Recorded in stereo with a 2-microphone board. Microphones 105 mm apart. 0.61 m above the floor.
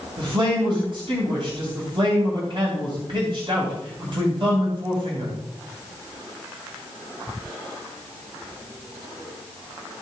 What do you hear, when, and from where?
0.2 s a man speaking: 55° right (ahead or behind), 3.5 m